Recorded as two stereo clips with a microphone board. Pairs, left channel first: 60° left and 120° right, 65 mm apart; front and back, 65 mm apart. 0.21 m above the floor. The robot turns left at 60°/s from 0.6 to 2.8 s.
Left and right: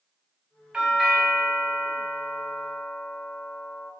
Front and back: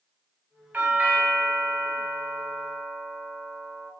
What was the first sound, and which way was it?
A doorbell, 175° right.